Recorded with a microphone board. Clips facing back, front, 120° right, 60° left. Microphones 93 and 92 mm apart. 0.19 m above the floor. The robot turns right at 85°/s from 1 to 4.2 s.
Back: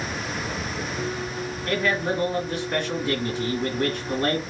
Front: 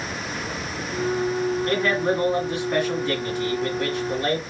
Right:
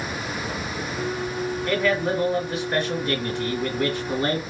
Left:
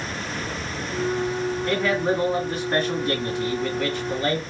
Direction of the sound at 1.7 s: 25° right.